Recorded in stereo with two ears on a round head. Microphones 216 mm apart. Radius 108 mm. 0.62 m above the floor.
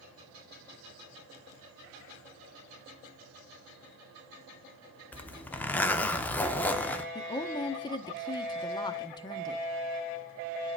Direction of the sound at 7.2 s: 20° left (ahead or behind).